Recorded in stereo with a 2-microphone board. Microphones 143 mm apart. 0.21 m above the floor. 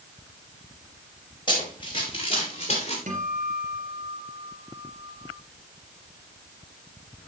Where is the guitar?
65° right (ahead or behind), 2.5 m.